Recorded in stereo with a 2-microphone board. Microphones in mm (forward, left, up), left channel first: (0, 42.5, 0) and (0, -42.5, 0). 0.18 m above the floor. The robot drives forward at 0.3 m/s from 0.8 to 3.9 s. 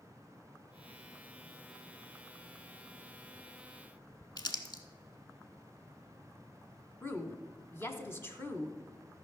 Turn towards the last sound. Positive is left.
turn(degrees=25)  # may be behind; listen again after turning